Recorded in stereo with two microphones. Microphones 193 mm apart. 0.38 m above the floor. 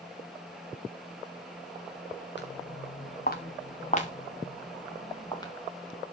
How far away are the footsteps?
About 2 m.